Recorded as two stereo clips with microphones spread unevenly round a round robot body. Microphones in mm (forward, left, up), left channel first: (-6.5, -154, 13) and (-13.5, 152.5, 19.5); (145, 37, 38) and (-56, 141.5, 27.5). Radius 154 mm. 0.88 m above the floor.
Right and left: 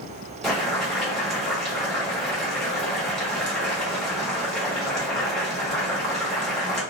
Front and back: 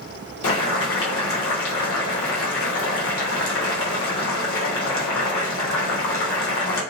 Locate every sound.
0.4 s boiling: straight ahead, 0.9 m